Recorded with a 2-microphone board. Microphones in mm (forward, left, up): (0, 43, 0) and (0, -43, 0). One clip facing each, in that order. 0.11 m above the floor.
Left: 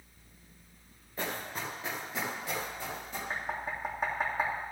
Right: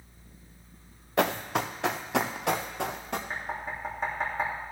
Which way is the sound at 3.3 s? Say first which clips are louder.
Right 1 dB; 5° left (ahead or behind).